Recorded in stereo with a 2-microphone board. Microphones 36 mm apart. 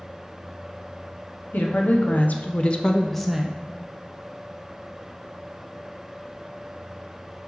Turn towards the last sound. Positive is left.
turn(degrees=-20)  # may be behind; listen again after turning